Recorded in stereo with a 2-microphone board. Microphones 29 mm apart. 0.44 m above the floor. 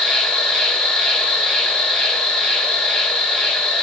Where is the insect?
20° left (ahead or behind), 1.4 m.